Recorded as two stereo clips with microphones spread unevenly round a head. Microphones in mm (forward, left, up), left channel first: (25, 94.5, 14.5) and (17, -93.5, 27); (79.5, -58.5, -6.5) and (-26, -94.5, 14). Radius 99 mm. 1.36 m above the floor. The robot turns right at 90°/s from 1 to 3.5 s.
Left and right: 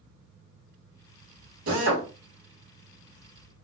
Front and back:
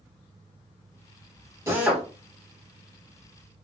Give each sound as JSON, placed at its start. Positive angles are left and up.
{"t": 1.7, "sound": "a drill", "azimuth_deg": -100, "distance_m": 1.7}